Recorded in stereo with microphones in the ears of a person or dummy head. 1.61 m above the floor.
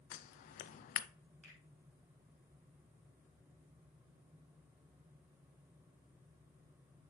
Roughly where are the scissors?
Left.